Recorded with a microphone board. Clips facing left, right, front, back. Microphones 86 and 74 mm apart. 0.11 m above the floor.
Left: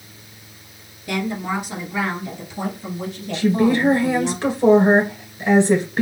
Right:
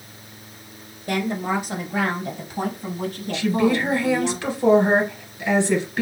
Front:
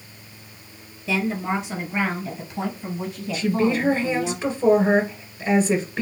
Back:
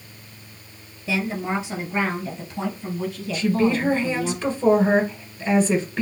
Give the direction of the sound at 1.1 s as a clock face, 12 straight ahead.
3 o'clock.